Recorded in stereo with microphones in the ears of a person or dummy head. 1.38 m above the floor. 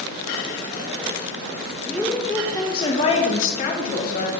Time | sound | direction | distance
1.9 | a woman speaking | centre (ahead or behind) | 1.1 m